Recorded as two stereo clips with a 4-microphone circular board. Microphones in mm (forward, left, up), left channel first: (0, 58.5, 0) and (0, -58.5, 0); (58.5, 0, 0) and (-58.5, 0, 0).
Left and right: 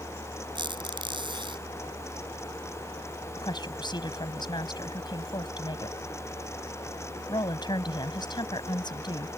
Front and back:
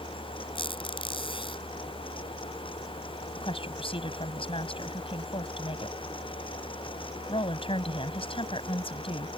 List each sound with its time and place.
0.6 s a squeak: 45° right
3.4 s a woman speaking: 40° left